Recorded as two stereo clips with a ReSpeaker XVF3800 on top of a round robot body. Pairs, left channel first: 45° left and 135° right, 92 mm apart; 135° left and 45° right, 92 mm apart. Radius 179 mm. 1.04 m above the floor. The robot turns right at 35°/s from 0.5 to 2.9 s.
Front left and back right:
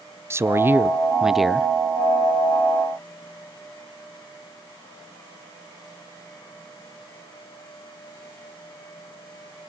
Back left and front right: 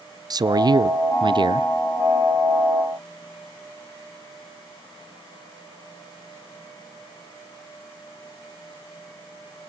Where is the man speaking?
80° right, 0.7 m; by 1.7 s 35° right, 0.7 m.